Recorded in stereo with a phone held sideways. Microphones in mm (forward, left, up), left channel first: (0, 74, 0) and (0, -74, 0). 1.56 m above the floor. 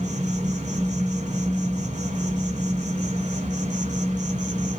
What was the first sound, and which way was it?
An insect, 55° right (ahead or behind).